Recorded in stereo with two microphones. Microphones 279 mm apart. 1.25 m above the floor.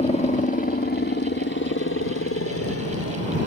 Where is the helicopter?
20° left (ahead or behind); by 3.5 s 60° left (ahead or behind).